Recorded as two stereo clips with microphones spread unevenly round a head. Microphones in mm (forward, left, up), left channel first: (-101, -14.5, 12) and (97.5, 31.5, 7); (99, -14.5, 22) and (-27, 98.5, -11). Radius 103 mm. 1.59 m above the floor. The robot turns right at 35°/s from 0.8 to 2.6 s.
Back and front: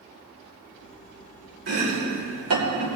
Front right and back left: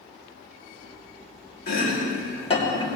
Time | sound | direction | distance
1.7 | chopping | 20° right | 2.5 m